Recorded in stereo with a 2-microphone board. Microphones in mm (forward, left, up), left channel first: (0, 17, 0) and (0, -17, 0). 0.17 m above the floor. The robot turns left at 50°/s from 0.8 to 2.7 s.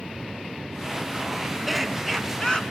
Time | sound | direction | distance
1.7 | laughter | 175° right | 2.0 m